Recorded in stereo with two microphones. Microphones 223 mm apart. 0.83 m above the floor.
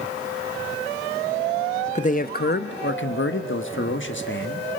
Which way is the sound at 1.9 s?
30° left (ahead or behind).